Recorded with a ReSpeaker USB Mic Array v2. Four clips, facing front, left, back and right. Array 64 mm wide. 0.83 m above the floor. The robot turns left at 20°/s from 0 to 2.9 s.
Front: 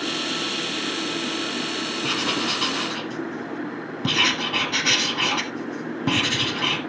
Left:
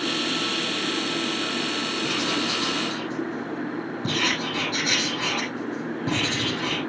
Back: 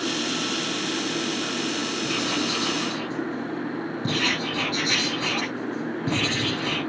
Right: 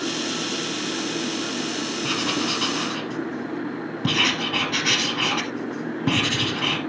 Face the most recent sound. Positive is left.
turn(degrees=-50)